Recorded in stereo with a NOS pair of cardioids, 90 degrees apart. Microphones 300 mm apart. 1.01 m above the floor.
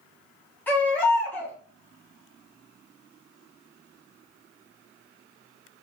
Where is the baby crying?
5° left, 2.5 m.